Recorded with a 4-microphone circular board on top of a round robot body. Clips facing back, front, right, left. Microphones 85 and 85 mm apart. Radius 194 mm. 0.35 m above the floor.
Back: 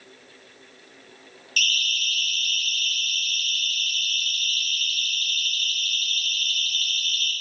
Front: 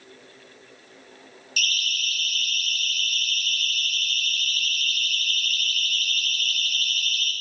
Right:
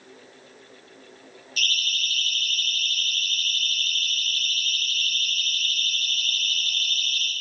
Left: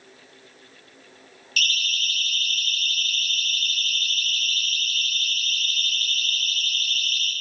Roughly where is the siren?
Left.